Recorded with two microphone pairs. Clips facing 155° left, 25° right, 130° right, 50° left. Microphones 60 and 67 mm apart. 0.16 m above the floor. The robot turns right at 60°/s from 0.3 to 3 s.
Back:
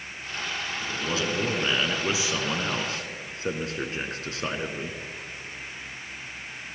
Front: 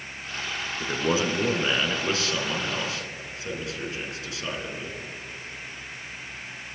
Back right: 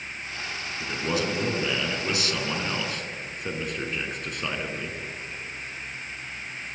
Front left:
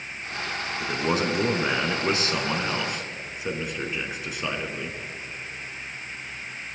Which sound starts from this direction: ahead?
A man speaking, at 0.8 s.